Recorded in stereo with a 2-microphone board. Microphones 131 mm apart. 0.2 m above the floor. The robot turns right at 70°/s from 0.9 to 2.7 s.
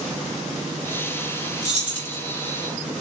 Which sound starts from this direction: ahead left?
Keys jangling, at 1.6 s.